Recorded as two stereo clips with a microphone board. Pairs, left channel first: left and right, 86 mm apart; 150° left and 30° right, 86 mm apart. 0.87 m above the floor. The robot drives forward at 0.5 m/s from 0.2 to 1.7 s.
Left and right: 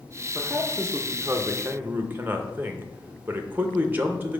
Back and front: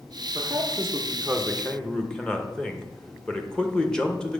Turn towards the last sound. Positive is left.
turn(degrees=-135)